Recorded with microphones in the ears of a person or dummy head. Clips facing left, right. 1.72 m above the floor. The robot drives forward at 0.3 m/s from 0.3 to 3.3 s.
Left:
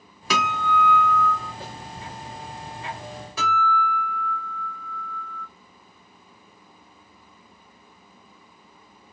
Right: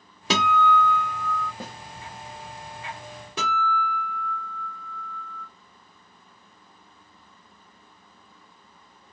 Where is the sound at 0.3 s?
30° right (ahead or behind), 0.7 m; by 1.5 s 55° right (ahead or behind), 0.5 m.